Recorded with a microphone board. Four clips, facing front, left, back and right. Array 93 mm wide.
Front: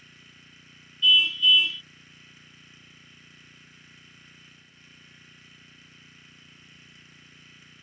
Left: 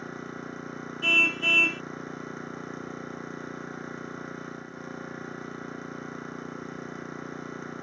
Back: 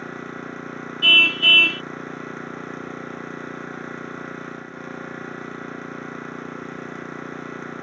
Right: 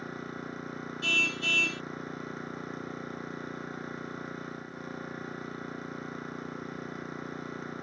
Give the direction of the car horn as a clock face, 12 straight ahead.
7 o'clock.